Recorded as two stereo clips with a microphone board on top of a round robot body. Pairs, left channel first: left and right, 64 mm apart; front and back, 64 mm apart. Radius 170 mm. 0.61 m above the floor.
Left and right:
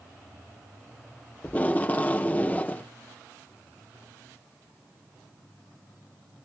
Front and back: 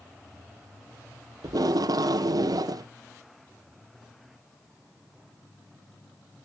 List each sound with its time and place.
1.4 s tape being pulled: 155° left, 0.6 m